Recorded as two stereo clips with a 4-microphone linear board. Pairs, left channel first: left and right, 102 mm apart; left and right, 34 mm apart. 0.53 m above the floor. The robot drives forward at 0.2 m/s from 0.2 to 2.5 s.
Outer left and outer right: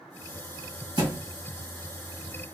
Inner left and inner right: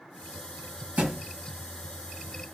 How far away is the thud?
About 1.5 m.